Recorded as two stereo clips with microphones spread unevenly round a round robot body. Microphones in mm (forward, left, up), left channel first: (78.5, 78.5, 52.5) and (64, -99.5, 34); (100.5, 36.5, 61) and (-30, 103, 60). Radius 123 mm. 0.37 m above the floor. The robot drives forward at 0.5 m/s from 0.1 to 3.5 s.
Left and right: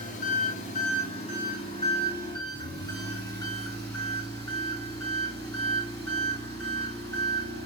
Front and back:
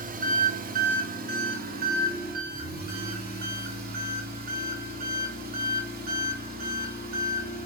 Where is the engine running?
140° left, 1.7 m; by 7.7 s 160° left, 3 m.